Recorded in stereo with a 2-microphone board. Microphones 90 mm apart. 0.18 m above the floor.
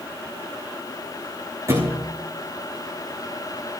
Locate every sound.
1.7 s a thud: 35° right (ahead or behind), 4 m